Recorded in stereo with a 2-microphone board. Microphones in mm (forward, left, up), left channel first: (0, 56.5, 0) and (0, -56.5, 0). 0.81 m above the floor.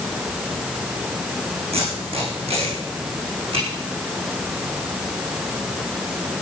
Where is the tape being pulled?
60° right (ahead or behind), 8.5 m.